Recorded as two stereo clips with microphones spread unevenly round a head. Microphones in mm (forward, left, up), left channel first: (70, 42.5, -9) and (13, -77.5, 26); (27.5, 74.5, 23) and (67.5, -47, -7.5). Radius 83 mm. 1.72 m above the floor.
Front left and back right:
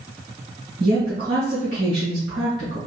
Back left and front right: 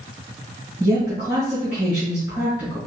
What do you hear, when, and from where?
0.8 s a woman speaking: 175° right, 1.7 m